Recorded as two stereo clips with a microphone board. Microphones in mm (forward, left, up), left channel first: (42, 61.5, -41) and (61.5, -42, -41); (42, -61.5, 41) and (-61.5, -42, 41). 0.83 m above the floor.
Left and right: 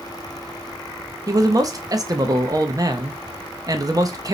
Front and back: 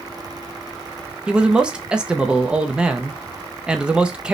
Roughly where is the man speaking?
Right.